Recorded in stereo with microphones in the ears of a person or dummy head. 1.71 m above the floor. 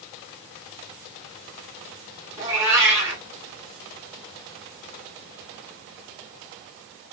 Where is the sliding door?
No sliding door in this recording.